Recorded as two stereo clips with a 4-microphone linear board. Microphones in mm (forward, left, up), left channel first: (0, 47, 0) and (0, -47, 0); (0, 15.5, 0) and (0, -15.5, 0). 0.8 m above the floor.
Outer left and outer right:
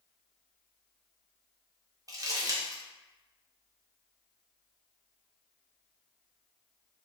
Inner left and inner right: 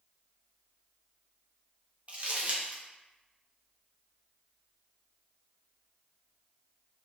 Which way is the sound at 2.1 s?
40° right (ahead or behind).